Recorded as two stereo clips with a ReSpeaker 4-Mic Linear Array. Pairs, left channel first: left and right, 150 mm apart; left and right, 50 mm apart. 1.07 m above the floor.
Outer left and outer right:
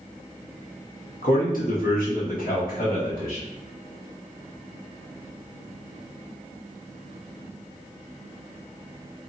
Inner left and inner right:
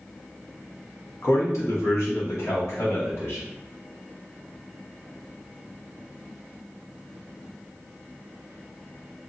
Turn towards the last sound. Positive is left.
turn(degrees=75)  # may be behind; listen again after turning